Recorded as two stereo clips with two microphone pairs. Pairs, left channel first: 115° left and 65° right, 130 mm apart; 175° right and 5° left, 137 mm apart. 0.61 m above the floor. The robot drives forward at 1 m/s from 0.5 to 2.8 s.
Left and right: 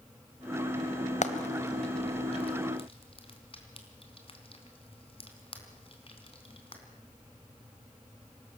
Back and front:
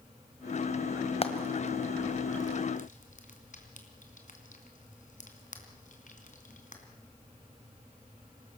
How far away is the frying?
About 1.8 m.